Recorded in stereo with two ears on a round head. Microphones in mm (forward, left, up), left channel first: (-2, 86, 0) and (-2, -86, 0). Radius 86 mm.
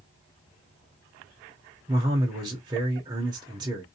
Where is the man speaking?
20° right (ahead or behind), 0.7 m.